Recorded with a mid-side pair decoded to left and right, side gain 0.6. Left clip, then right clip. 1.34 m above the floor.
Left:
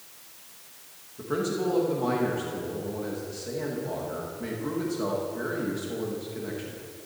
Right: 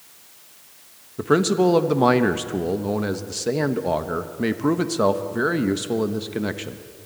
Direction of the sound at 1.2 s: 60° right.